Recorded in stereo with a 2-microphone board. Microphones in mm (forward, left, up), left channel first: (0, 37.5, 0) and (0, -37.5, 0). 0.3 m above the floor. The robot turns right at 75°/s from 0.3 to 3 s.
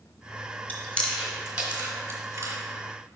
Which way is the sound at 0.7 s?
25° left (ahead or behind).